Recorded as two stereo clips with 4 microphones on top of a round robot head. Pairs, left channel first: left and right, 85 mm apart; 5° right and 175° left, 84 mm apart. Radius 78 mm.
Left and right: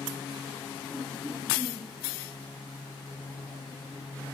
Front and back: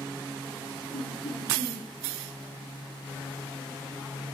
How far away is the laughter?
About 5 m.